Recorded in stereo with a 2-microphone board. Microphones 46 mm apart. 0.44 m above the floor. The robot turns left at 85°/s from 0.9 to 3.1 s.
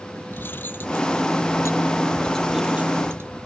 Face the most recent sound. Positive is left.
turn(degrees=-50)